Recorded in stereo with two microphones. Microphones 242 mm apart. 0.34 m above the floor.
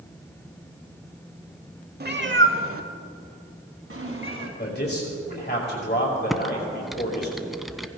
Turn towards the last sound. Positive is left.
turn(degrees=0)  # may be behind; listen again after turning